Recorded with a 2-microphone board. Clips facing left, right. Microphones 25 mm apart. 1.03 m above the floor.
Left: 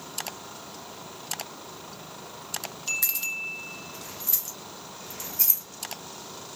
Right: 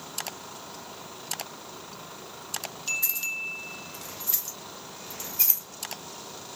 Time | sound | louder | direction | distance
3.0 | keys jangling | even | 80° left | 0.7 m